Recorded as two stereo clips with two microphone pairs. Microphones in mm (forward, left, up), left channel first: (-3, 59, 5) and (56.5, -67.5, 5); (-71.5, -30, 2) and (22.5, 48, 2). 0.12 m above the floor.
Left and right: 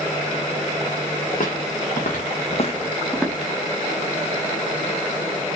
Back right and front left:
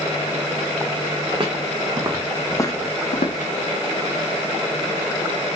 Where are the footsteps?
90° left, 1.2 m; by 3.5 s 145° right, 0.9 m.